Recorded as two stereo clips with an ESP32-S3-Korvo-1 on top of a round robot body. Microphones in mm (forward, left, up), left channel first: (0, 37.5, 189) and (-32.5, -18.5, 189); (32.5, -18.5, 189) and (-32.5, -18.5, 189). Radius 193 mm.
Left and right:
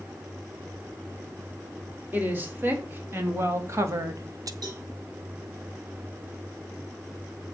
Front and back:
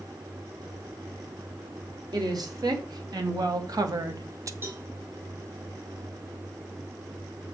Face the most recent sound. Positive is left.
turn(degrees=-125)